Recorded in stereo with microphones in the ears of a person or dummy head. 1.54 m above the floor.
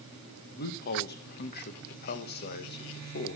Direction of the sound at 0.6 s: 50° left (ahead or behind).